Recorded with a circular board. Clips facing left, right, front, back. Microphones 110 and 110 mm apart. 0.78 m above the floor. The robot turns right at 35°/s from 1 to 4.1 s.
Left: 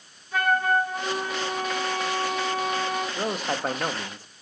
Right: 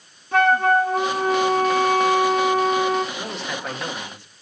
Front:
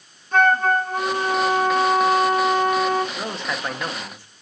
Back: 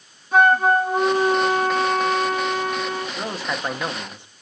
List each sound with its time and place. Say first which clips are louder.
0.3 s a flute: right 6 dB, back 2 dB; 100° right, 1.9 m; by 3.0 s 25° right, 1.9 m
3.1 s a man speaking: left 2 dB, back 1 dB; 85° left, 1.2 m; by 4.3 s 120° left, 1.2 m